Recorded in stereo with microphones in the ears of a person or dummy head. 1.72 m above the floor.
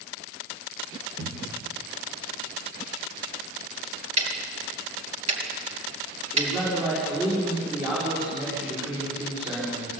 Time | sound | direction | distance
1.2 | a cupboard door | 55° right (ahead or behind) | 3 m
4.2 | ticking | 45° right (ahead or behind) | 4 m
6.3 | a man speaking | 20° right (ahead or behind) | 6 m